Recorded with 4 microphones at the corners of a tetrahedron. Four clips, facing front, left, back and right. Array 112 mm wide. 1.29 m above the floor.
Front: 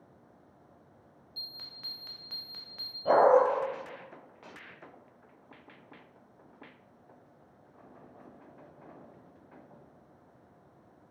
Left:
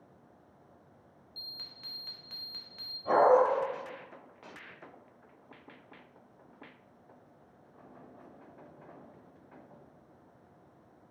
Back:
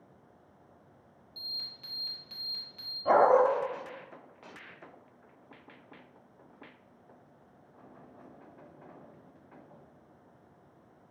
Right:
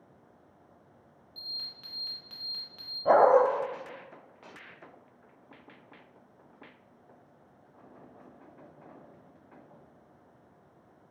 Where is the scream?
I don't hear a scream.